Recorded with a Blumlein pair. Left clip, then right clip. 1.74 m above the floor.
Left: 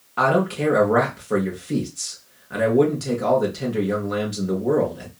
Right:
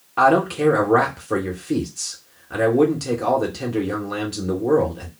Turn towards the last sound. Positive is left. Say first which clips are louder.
# right 3 dB
turn(degrees=-5)